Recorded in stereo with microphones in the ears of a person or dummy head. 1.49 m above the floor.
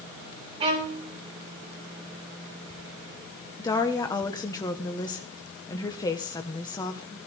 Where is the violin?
25° right (ahead or behind), 5 m.